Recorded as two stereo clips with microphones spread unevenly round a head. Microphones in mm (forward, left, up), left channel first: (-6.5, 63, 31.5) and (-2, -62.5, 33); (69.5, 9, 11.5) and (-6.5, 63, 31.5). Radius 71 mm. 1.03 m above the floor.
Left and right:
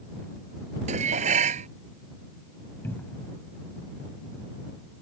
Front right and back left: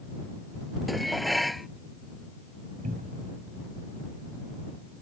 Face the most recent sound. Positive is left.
turn(degrees=170)